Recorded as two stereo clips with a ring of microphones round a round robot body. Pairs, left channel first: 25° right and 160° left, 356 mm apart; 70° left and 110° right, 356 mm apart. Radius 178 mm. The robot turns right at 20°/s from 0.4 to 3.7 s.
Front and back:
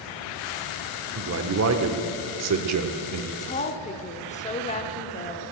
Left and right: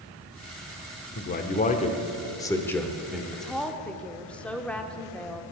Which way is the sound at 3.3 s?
20° right.